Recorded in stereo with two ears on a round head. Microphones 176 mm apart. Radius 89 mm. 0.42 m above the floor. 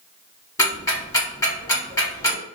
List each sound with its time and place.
0.6 s ticking: 15° left (ahead or behind), 1.1 m